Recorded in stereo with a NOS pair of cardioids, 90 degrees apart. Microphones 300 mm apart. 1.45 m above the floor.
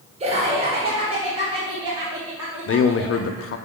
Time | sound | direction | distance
0.2 | laughter | 20° right | 1.4 m
2.7 | a man speaking | 50° left | 0.6 m